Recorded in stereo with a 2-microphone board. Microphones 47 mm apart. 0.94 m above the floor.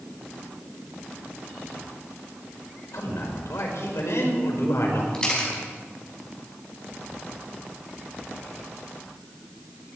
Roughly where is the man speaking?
Left.